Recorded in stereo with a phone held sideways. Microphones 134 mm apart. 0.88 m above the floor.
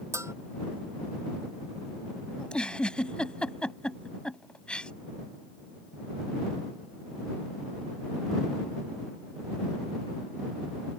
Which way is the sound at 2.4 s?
5° left (ahead or behind).